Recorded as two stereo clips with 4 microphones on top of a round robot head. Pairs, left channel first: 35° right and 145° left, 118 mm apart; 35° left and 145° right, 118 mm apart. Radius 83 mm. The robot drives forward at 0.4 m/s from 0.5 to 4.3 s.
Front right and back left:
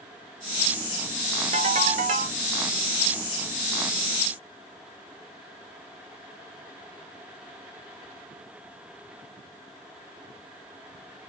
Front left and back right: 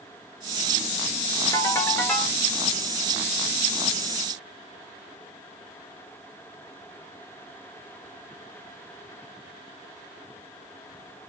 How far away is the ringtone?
About 1.0 m.